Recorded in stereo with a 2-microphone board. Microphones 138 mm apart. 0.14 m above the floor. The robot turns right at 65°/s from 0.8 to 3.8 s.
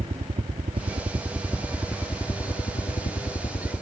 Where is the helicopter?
50° right (ahead or behind); by 3.8 s 35° left (ahead or behind).